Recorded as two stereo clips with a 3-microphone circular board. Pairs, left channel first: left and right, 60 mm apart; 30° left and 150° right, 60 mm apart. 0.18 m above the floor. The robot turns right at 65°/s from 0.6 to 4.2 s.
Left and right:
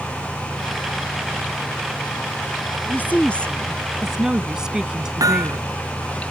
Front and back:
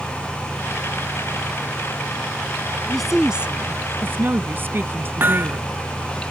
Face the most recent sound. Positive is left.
turn(degrees=-95)